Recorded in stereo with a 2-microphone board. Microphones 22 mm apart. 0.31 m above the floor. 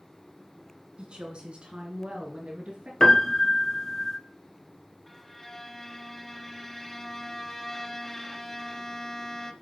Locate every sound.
1.0 s a woman speaking: 50° right (ahead or behind), 2.5 m; by 2.9 s 65° right (ahead or behind), 4 m
3.0 s a piano: 30° left (ahead or behind), 1.2 m
5.1 s a violin: 15° left (ahead or behind), 0.9 m